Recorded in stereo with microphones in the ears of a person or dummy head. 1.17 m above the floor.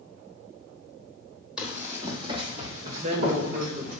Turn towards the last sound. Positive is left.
turn(degrees=-25)  # may be behind; listen again after turning